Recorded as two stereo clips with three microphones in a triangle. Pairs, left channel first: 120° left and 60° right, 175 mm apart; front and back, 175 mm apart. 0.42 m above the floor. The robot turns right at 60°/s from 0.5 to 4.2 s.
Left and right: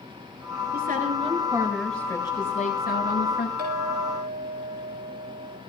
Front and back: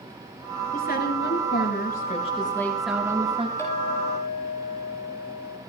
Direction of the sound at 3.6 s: 75° right.